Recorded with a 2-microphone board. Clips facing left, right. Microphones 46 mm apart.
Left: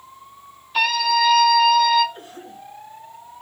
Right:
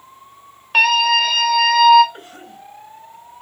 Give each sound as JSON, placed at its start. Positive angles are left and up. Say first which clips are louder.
{"t": 0.7, "sound": "a scream", "louder": "right 5 dB", "side_deg": -70, "distance_m": 3.5}
{"t": 2.1, "sound": "a cough", "louder": "even", "side_deg": -75, "distance_m": 3.0}